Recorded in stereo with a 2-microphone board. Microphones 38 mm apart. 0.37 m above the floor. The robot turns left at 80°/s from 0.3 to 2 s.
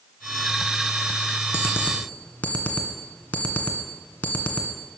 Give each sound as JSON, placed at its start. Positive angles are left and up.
{"t": 1.5, "sound": "an alarm clock", "side_deg": 75, "distance_m": 1.7}